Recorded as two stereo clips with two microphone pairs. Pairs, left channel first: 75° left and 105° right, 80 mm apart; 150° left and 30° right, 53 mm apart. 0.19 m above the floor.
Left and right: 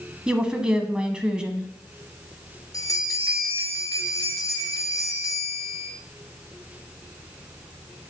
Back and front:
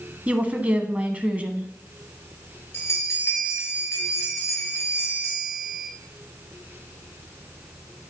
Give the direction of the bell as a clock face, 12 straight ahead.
8 o'clock.